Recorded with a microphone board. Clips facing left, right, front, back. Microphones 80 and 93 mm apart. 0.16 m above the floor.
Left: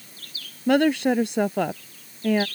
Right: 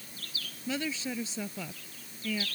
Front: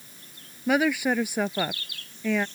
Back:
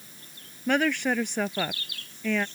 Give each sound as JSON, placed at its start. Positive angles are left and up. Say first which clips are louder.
{"t": 0.7, "sound": "a woman speaking", "louder": "left 16 dB, front 2 dB", "azimuth_deg": 80}